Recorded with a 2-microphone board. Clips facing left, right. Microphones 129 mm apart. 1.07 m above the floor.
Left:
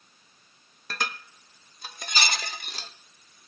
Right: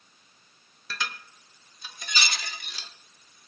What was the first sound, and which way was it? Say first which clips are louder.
Dishes clattering: left 2 dB; 50° left (ahead or behind).